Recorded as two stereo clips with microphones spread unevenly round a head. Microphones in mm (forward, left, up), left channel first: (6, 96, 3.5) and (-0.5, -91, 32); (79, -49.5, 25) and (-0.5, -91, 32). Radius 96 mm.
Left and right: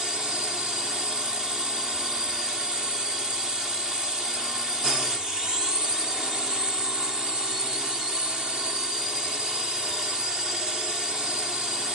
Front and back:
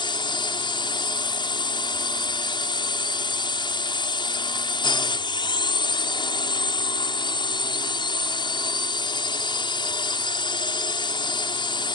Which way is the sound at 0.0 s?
Straight ahead.